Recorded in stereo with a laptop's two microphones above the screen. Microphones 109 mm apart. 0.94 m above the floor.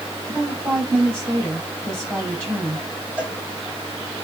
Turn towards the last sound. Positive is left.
turn(degrees=-15)  # may be behind; listen again after turning